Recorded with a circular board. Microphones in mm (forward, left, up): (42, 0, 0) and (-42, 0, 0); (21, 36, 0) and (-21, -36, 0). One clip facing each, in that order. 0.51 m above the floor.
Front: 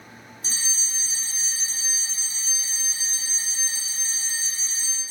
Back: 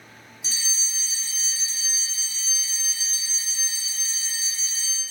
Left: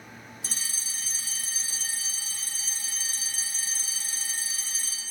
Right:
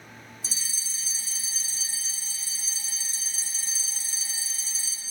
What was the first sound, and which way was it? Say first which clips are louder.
A fire alarm: even, left 2 dB; 45° left.